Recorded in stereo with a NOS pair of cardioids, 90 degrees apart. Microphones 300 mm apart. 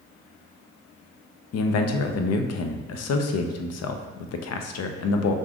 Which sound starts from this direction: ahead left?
A man speaking, at 1.5 s.